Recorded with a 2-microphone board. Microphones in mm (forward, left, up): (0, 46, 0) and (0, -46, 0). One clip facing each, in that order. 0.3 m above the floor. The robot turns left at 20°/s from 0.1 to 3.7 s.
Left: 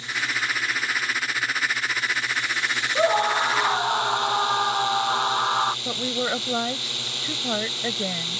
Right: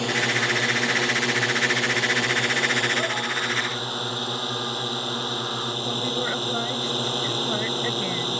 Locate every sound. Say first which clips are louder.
0.0 s a drone: right 4 dB; 70° right; by 8.4 s 140° right
3.0 s a scream: left 7 dB; 35° left (ahead or behind); by 5.8 s 50° left (ahead or behind)
5.8 s a woman speaking: even; 15° left (ahead or behind)